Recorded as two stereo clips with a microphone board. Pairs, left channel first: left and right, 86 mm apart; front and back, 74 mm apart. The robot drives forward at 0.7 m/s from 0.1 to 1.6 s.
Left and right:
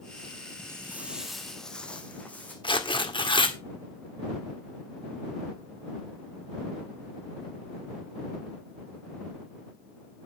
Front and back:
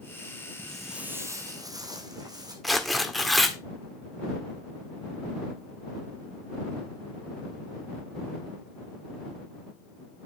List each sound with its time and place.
0.6 s footsteps: 55° right, 1.3 m; by 2.5 s 160° left, 3 m
2.6 s tearing paper: 90° left, 1.7 m